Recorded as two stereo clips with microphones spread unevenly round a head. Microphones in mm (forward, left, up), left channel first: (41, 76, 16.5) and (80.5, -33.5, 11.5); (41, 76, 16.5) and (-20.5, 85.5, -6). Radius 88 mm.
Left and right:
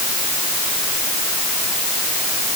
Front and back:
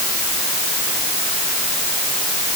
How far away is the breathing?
No breathing in this recording.